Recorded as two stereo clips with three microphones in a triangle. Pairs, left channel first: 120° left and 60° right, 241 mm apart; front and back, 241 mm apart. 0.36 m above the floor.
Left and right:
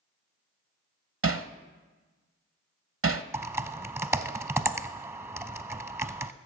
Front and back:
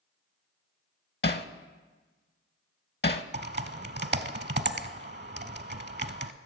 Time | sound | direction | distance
1.2 | hammering | 40° right | 0.6 m
3.3 | typing on a keyboard | 140° right | 0.7 m